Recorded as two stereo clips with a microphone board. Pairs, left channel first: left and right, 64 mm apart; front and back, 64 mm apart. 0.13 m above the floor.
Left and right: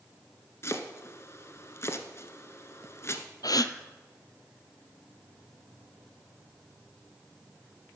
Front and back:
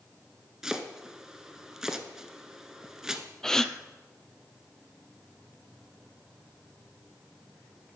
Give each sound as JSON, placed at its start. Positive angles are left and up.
{"t": 0.6, "sound": "chopping", "azimuth_deg": 100, "distance_m": 0.9}
{"t": 3.4, "sound": "a gasp", "azimuth_deg": 80, "distance_m": 0.6}